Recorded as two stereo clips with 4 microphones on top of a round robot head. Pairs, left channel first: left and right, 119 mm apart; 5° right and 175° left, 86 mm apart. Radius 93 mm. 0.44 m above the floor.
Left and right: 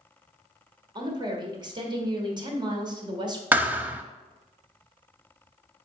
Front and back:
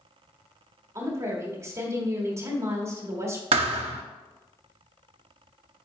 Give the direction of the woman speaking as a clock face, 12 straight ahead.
4 o'clock.